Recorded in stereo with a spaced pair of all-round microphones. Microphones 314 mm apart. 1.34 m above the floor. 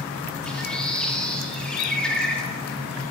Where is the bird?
5° left (ahead or behind), 0.5 m.